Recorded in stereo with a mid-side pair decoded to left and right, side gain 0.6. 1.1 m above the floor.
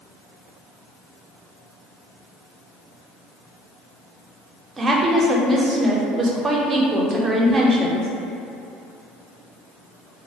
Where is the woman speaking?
30° right, 0.5 m.